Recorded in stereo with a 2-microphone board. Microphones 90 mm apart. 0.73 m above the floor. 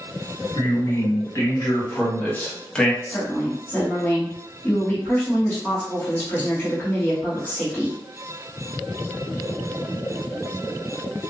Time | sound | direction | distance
0.6 | a man speaking | 40° left (ahead or behind) | 1.7 m
3.0 | a woman speaking | 25° left (ahead or behind) | 1.4 m